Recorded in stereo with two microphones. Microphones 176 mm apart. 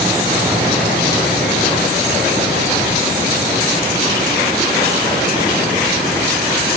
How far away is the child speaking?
No child speaking in this recording.